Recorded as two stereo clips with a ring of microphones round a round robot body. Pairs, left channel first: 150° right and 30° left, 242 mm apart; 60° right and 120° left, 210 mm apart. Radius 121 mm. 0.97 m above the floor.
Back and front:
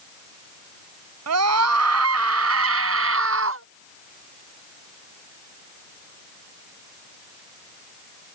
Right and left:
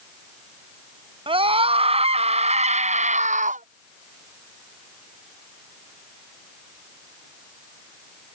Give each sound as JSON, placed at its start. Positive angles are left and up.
{"t": 1.3, "sound": "a scream", "azimuth_deg": 55}